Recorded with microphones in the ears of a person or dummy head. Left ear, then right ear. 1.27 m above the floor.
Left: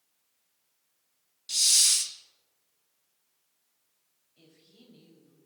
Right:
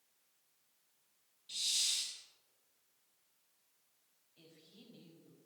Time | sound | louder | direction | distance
1.5 | a hiss | left 12 dB | 55° left (ahead or behind) | 0.9 m
4.4 | a woman speaking | left 2 dB | centre (ahead or behind) | 3 m